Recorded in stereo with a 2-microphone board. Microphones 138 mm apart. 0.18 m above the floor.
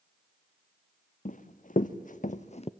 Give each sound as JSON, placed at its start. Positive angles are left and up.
{"t": 1.2, "sound": "running footsteps", "side_deg": 75, "distance_m": 1.0}